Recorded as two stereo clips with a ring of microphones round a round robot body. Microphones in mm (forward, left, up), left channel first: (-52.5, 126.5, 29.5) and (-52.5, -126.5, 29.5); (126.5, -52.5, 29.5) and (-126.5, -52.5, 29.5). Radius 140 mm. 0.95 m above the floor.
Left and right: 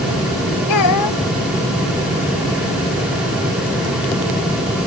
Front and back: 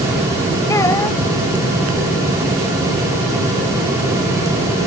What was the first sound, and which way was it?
A child speaking, 80° left.